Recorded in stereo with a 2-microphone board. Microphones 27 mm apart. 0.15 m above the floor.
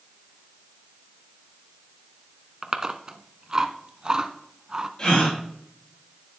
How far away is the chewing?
About 0.6 m.